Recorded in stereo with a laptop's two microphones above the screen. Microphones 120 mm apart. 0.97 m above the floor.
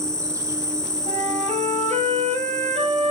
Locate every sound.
0.0 s an insect: 25° right (ahead or behind), 1.4 m
1.1 s a flute: 80° right, 6.5 m